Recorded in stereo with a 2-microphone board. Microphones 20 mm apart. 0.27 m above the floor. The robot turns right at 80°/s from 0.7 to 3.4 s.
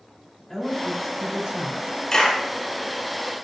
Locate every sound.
0.5 s a woman speaking: 160° left, 4 m; by 2.0 s 100° right, 4 m
2.1 s a clap: 20° left (ahead or behind), 5 m; by 2.4 s 45° left (ahead or behind), 5 m